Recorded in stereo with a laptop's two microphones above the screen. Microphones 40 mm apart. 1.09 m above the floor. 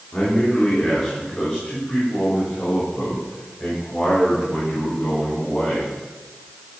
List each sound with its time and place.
0.1 s a man speaking: 20° left (ahead or behind), 3 m; by 5.9 s 25° left (ahead or behind), 6 m